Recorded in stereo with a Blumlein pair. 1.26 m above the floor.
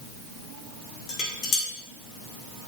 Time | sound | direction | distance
1.1 | dishes clattering | 40° left | 1.8 m